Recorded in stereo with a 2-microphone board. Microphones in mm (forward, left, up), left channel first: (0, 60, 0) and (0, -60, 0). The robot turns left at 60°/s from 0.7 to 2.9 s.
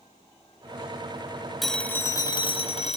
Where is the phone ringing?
Straight behind, 1.1 m; by 3.0 s 105° left, 1.1 m.